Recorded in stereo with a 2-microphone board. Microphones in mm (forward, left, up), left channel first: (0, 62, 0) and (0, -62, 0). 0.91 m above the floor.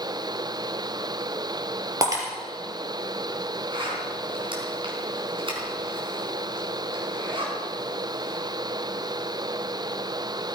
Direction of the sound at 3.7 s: 45° right (ahead or behind).